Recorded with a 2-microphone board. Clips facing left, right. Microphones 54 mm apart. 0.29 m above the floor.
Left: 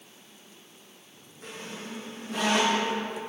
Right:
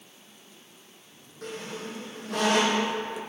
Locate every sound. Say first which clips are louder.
1.4 s a squeak: right 4 dB; 60° right (ahead or behind), 2.5 m